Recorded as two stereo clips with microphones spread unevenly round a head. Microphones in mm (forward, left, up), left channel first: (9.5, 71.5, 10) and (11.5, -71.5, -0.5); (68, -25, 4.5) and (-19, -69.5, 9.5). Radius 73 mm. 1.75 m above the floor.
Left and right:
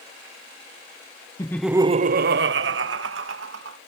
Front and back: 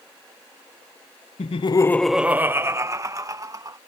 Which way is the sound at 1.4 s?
30° left.